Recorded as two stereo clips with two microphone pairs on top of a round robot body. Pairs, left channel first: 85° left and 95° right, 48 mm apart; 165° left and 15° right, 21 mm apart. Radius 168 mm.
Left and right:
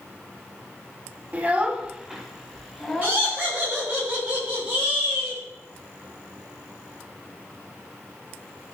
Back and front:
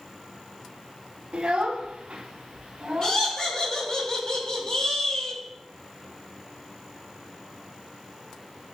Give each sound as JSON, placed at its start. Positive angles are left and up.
{"t": 1.3, "sound": "a child speaking", "azimuth_deg": -35, "distance_m": 1.3}
{"t": 3.0, "sound": "laughter", "azimuth_deg": -155, "distance_m": 5.0}